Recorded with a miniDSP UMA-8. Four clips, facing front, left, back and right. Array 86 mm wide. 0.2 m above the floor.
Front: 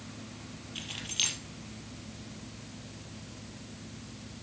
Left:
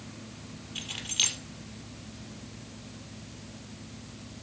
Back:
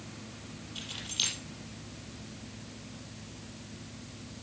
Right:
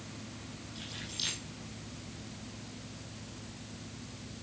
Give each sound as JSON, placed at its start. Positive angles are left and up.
{"t": 0.8, "sound": "keys jangling", "azimuth_deg": 55, "distance_m": 3.5}